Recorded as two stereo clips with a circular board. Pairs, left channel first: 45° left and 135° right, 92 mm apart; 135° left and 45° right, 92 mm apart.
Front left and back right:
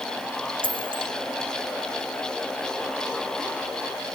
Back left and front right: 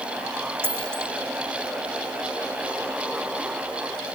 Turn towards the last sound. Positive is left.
turn(degrees=-110)